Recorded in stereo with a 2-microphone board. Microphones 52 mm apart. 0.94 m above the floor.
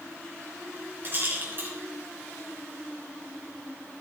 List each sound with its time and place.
1.0 s a rattle: 40° right (ahead or behind), 3 m